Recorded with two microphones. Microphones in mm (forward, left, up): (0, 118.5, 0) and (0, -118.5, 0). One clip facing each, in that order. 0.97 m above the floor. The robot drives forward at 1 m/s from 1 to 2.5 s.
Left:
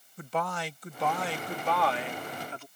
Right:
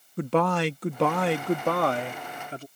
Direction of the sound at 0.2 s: 70° right (ahead or behind).